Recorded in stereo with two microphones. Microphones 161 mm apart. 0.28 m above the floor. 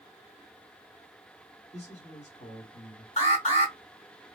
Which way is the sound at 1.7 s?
45° left (ahead or behind).